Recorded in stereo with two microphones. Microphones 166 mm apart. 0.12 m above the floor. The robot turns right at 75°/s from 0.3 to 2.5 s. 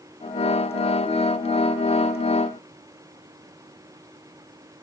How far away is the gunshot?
No gunshot in this recording.